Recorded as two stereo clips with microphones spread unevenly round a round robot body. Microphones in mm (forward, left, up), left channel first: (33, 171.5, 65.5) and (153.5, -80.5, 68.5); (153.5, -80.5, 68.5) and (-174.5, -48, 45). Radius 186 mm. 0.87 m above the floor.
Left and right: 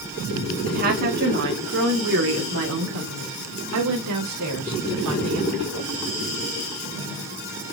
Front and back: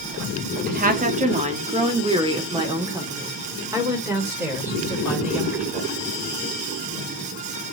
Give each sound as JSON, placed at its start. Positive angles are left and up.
{"t": 0.7, "sound": "a woman speaking", "azimuth_deg": -125, "distance_m": 1.8}